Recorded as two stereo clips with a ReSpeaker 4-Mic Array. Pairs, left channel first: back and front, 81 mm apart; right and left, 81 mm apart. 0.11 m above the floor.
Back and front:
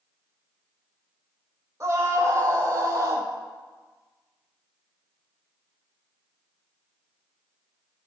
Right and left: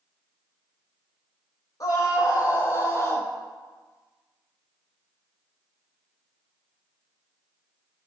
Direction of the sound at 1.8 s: 50° right.